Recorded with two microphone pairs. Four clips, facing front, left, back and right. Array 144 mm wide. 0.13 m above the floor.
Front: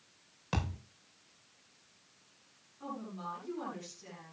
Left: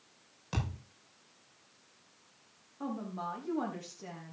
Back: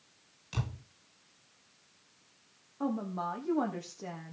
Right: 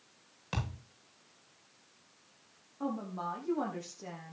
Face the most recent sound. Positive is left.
turn(degrees=-175)